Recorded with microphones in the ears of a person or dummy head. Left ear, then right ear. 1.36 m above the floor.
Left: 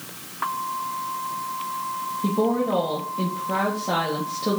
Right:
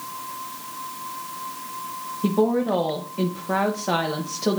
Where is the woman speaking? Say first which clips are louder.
Right 2 dB; 70° right (ahead or behind), 1.1 m.